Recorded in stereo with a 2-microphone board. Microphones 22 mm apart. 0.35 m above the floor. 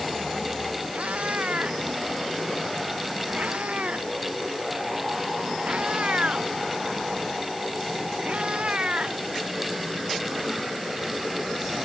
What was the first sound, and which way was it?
A cat meowing, 75° right (ahead or behind).